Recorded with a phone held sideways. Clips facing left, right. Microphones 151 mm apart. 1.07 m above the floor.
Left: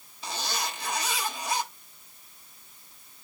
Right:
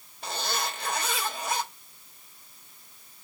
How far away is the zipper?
About 3 m.